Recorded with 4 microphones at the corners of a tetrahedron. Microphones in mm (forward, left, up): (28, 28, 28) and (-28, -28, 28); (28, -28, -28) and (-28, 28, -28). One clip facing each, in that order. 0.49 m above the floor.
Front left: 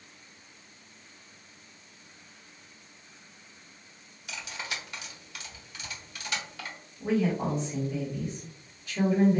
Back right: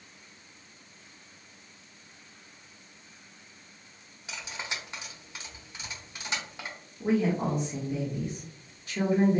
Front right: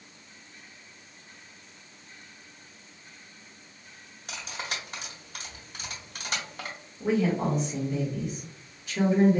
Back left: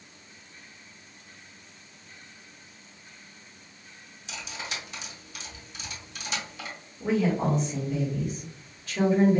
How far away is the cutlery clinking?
About 1.0 m.